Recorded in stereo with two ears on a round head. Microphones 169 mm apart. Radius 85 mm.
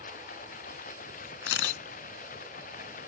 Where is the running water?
45° left (ahead or behind).